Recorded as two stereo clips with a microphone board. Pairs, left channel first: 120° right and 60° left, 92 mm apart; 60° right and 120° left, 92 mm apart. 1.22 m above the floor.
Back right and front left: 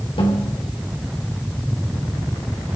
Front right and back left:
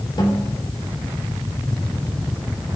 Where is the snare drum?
100° right, 4.5 m.